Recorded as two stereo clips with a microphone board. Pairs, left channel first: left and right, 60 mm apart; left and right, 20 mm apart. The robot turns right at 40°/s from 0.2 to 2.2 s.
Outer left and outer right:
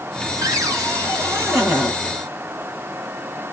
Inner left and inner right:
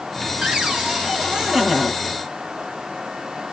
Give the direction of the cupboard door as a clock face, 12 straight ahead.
3 o'clock.